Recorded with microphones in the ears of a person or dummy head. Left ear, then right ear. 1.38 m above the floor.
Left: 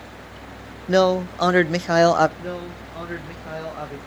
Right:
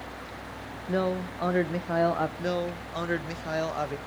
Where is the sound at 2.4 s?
80° right, 1.4 m.